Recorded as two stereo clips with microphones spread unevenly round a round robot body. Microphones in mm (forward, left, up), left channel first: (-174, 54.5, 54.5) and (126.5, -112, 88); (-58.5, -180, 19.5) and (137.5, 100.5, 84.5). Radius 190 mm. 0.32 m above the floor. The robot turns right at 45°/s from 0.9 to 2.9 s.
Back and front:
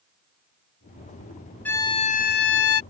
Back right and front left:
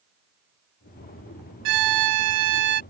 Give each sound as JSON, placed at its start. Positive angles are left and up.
{"t": 1.6, "sound": "a violin", "azimuth_deg": 70}